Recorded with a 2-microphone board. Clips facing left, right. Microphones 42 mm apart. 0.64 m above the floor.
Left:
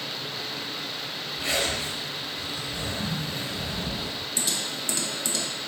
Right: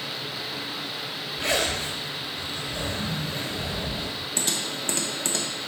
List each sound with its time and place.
1.4 s a zipper: 65° right (ahead or behind), 1.5 m
4.4 s typing on a keyboard: 45° right (ahead or behind), 0.6 m